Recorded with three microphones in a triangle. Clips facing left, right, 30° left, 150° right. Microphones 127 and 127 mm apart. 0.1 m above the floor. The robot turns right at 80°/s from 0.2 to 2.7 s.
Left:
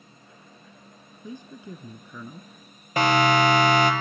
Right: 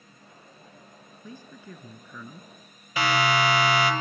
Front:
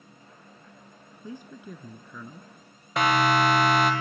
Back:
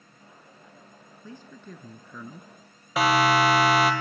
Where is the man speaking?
60° left, 1.1 m; by 2.5 s 160° left, 1.1 m.